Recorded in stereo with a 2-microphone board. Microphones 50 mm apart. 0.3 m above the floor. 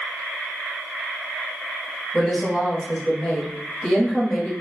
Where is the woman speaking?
5° left (ahead or behind), 1.2 m.